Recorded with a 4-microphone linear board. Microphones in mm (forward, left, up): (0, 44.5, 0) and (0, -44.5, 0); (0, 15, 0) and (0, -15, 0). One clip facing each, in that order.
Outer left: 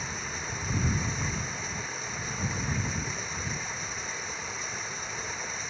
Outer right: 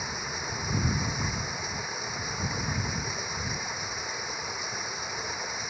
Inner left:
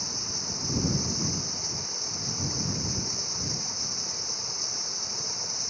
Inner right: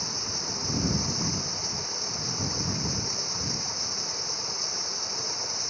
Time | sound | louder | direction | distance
0.0 | running water | outer right 2 dB, inner right 2 dB | 10° right (ahead or behind) | ?